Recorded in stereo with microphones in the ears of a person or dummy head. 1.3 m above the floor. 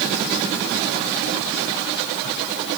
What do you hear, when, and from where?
Only background noise.